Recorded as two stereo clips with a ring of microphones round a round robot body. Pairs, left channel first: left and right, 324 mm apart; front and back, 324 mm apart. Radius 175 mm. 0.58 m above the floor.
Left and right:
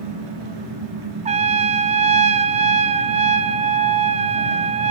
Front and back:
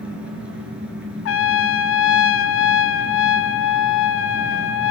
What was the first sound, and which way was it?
An engine running, 95° right.